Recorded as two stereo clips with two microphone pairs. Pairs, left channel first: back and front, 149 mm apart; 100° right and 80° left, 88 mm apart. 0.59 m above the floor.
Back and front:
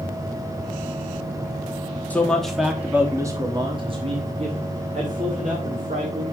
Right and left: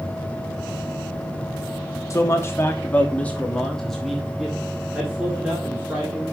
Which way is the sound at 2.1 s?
110° right.